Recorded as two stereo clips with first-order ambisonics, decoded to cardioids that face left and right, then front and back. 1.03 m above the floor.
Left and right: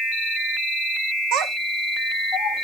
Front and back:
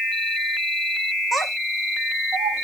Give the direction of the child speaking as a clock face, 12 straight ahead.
3 o'clock.